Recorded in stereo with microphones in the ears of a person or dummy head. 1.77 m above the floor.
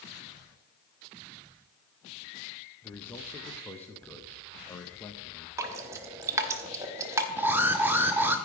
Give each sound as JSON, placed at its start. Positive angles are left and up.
{"t": 2.8, "sound": "a man speaking", "side_deg": 10, "distance_m": 0.6}
{"t": 5.6, "sound": "dripping", "side_deg": -20, "distance_m": 0.8}
{"t": 7.4, "sound": "an alarm", "side_deg": -15, "distance_m": 0.6}